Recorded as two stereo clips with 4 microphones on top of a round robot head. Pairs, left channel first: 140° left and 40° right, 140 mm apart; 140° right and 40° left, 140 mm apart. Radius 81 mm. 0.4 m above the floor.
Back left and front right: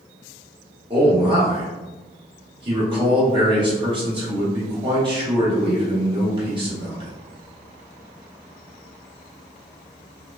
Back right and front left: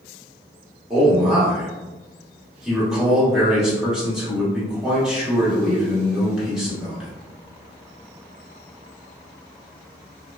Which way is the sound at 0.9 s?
40° right.